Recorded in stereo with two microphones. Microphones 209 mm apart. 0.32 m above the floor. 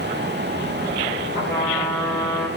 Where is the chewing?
No chewing in this recording.